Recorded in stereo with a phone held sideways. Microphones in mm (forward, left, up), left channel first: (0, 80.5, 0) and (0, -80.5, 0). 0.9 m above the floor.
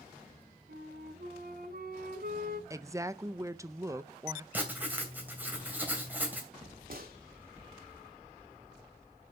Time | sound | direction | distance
0.7 | a flute | 70° right (ahead or behind) | 1.6 m
2.7 | a woman speaking | 20° right (ahead or behind) | 0.5 m
4.5 | writing | 10° right (ahead or behind) | 3 m
6.9 | a gunshot | 65° right (ahead or behind) | 1.6 m